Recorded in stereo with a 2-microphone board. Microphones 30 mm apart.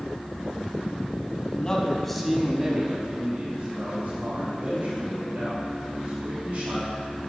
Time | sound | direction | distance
1.6 | a man speaking | 25° left (ahead or behind) | 1.2 m